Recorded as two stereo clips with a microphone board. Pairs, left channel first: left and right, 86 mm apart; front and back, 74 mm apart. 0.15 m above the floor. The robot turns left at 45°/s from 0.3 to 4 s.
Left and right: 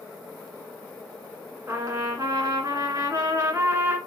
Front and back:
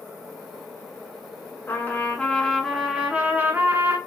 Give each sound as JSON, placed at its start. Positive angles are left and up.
{"t": 1.7, "sound": "a trumpet", "azimuth_deg": -45, "distance_m": 1.2}